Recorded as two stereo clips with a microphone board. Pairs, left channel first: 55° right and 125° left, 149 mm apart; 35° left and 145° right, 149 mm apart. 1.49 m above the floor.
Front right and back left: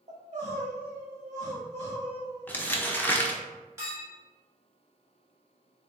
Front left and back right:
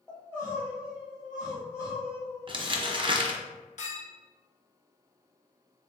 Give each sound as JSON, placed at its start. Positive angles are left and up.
{"t": 0.1, "sound": "crying", "azimuth_deg": 100, "distance_m": 1.4}
{"t": 2.5, "sound": "crumpling", "azimuth_deg": -125, "distance_m": 0.6}
{"t": 3.8, "sound": "a clink", "azimuth_deg": 60, "distance_m": 1.4}